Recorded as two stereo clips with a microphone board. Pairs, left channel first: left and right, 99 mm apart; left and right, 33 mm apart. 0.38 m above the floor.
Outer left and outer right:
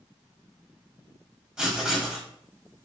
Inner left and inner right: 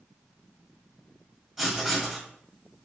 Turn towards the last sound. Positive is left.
turn(degrees=-5)  # may be behind; listen again after turning